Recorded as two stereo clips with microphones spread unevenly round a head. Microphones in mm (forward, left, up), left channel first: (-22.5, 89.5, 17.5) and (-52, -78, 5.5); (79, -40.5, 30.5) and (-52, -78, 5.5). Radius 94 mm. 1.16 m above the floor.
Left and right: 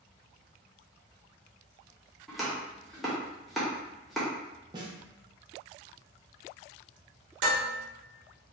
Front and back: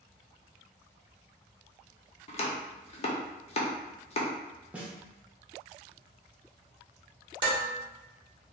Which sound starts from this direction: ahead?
Chopping, at 2.3 s.